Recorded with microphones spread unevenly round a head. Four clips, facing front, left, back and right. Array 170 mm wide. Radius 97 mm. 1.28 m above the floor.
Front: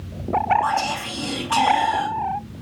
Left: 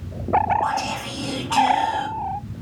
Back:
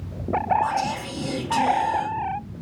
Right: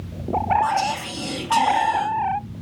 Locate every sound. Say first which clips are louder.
0.6 s whispering: right 2 dB, front 2 dB; 165° right, 5.5 m